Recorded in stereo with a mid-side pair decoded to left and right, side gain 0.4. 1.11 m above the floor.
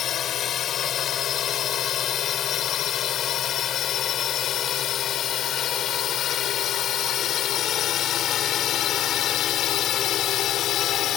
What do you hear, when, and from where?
0.0 s a drone: 70° left; by 11.2 s 80° left